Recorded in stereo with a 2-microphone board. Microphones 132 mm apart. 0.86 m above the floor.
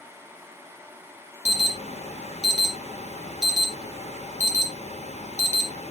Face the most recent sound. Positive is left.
turn(degrees=65)  # may be behind; listen again after turning